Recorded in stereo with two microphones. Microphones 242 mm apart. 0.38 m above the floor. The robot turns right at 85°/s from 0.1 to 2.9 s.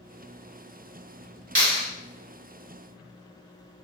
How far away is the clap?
About 1.4 m.